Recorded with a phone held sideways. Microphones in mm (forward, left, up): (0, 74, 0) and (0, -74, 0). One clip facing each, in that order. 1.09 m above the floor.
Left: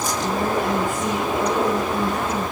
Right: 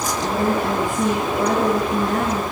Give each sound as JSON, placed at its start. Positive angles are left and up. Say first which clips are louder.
{"t": 0.2, "sound": "a woman speaking", "louder": "right 2 dB", "side_deg": -85, "distance_m": 10.0}